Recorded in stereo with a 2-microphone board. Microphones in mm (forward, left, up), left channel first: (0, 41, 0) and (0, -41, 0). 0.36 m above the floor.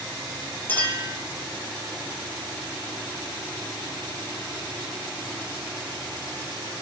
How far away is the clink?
About 8 m.